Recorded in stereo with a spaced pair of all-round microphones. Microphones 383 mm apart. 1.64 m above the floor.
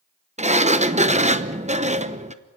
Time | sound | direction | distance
0.4 | a sliding door | 20° right (ahead or behind) | 0.8 m